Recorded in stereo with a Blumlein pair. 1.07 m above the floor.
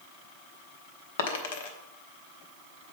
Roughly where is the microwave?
No microwave in this recording.